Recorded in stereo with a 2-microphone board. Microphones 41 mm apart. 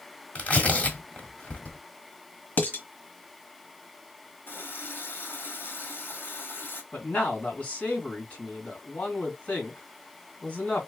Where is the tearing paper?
35° left (ahead or behind), 1.2 m.